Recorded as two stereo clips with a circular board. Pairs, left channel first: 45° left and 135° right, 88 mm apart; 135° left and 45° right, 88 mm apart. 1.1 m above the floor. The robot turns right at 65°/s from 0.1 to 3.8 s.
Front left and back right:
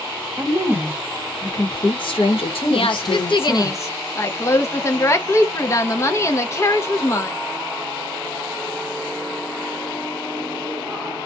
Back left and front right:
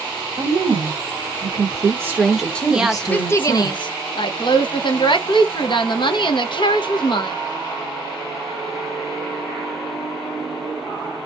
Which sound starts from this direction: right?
A woman speaking, at 0.4 s.